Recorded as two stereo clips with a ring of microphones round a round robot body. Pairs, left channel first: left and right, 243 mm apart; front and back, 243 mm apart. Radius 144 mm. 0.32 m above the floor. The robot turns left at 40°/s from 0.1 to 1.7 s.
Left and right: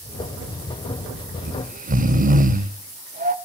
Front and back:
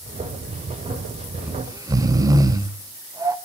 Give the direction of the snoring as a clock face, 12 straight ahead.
3 o'clock.